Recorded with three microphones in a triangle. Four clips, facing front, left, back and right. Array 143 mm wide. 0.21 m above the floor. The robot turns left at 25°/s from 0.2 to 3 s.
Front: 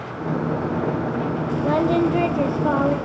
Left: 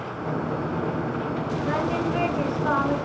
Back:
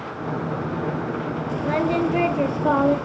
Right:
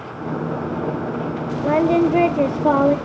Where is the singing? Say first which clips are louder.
Right 11 dB, front 3 dB; 65° right, 0.8 m; by 3.0 s 100° right, 0.8 m.